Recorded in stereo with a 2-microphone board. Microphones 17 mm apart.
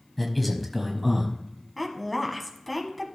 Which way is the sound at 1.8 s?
5° right (ahead or behind).